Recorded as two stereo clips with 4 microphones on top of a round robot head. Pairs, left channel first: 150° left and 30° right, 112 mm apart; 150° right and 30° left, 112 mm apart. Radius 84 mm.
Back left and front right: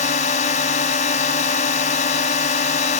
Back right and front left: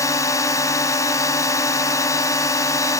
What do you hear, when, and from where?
0.0 s a drone: 150° left